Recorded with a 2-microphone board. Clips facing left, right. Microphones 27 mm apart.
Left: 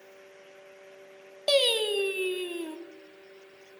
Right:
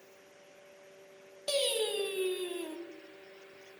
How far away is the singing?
About 0.7 m.